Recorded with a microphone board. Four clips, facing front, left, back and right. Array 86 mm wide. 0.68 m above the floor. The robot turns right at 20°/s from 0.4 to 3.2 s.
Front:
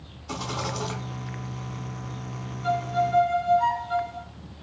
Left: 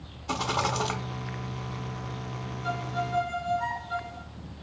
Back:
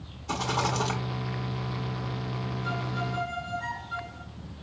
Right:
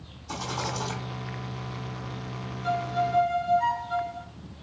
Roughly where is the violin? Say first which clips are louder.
Right 5 dB, front 11 dB; ahead.